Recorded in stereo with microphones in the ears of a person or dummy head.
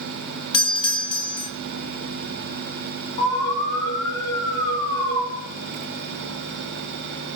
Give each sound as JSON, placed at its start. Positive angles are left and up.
{"t": 0.5, "sound": "a doorbell", "side_deg": 25, "distance_m": 0.6}
{"t": 3.2, "sound": "an alarm", "side_deg": 25, "distance_m": 3.0}